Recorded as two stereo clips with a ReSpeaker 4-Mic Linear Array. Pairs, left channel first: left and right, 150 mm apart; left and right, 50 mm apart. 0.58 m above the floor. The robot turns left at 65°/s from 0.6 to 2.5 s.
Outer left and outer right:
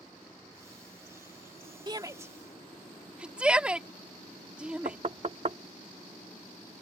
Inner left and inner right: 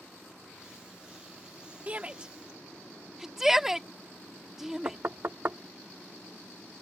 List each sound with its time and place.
1.9 s a shout: 30° right (ahead or behind); by 5.0 s 5° right (ahead or behind)
4.8 s knocking: 45° right (ahead or behind)